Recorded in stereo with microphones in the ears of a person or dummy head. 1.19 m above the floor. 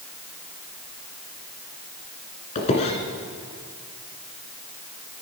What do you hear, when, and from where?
2.5 s a squeak: 40° left (ahead or behind), 1.7 m